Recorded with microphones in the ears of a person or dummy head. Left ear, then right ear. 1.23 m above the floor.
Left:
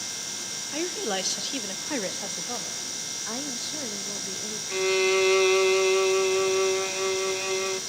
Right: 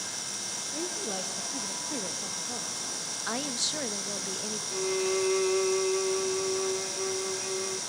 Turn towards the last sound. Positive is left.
turn(degrees=30)  # may be behind; listen again after turning